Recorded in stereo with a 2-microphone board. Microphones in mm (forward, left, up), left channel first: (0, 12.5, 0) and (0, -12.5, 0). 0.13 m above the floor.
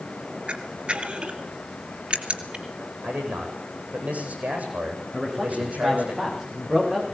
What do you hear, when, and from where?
0.5 s a camera shutter: 50° right (ahead or behind), 2.5 m
3.0 s a man speaking: 80° right, 8 m
5.1 s a man speaking: 20° right (ahead or behind), 9.5 m